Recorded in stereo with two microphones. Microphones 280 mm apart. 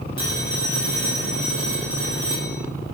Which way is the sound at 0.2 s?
80° right.